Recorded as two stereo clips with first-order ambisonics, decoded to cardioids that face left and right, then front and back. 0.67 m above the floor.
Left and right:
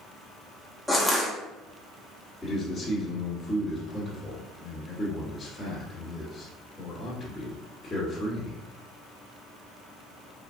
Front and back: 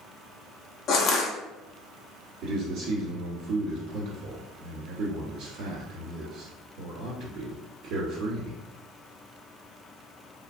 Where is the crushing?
Straight ahead, 0.6 m.